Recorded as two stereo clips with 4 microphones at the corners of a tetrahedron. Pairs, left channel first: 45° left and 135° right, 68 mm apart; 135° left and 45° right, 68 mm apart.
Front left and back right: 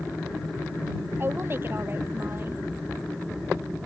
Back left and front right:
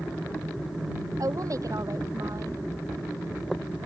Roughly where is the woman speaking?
Right.